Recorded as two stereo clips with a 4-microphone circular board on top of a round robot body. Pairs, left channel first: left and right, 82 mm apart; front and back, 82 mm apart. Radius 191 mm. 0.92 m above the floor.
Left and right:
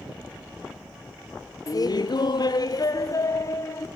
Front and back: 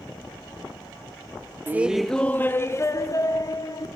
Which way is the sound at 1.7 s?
120° left.